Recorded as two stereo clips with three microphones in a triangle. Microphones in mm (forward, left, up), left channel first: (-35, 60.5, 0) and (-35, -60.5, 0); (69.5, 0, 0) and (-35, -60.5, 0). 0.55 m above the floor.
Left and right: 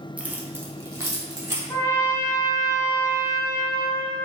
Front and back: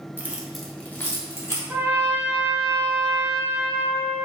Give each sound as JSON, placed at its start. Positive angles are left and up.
{"t": 0.2, "sound": "keys jangling", "azimuth_deg": -140, "distance_m": 0.5}
{"t": 1.7, "sound": "a trumpet", "azimuth_deg": 150, "distance_m": 0.6}